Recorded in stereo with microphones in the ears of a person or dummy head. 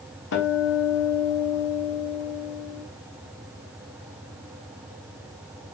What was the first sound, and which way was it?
A guitar, 75° left (ahead or behind).